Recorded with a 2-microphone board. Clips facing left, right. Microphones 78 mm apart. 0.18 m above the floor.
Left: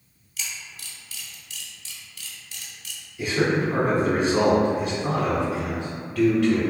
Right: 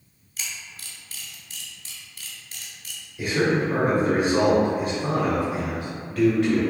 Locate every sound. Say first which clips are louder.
0.4 s a camera shutter: even; 40° right (ahead or behind), 0.8 m
3.2 s a man speaking: even; 25° right (ahead or behind), 1.1 m